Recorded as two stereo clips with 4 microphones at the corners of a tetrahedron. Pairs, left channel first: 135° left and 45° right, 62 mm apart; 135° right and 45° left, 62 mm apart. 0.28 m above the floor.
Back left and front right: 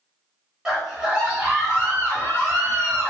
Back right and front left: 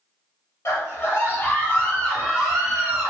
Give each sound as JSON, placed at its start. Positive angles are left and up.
{"t": 0.7, "sound": "a scream", "azimuth_deg": -125, "distance_m": 1.9}